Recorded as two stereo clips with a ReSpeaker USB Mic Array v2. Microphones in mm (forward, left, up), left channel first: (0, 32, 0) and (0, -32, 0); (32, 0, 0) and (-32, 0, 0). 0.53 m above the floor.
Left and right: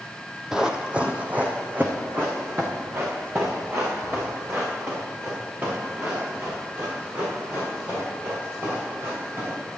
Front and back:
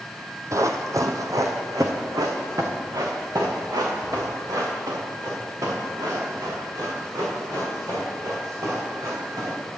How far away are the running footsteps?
About 0.8 m.